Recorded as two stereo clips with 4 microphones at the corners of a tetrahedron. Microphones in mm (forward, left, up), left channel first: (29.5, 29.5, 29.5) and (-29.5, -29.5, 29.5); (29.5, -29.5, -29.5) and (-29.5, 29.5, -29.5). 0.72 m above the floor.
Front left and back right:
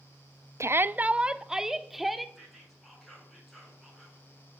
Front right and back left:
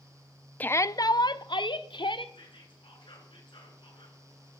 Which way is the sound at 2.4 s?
45° right.